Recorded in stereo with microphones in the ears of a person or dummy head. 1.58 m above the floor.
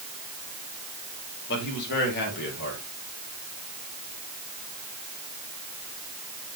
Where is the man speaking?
55° left (ahead or behind), 4 m.